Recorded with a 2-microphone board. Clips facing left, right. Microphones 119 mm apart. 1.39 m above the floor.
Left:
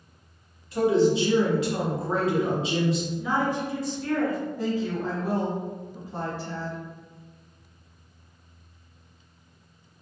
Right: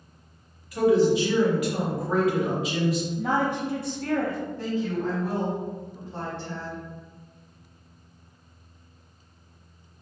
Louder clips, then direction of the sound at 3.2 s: Right 1 dB; 60° right (ahead or behind).